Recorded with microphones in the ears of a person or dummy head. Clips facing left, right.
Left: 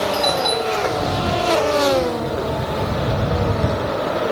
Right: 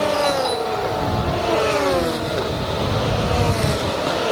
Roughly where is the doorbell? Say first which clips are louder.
Even; left.